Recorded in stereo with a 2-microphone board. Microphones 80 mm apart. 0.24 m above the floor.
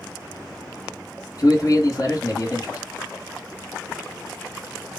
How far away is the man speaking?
About 1.9 m.